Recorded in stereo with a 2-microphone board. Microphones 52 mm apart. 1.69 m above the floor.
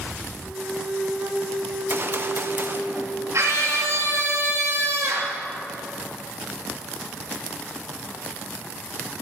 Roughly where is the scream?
Right.